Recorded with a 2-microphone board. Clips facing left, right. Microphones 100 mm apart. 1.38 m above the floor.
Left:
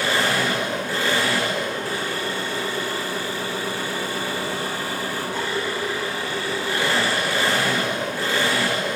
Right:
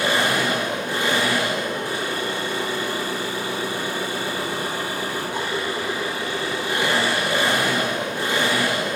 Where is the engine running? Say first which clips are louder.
Right 1 dB; 20° right (ahead or behind), 8.5 m.